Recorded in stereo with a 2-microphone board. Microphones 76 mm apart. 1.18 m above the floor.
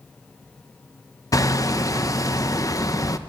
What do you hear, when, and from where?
1.3 s hammering: 45° left (ahead or behind), 1.0 m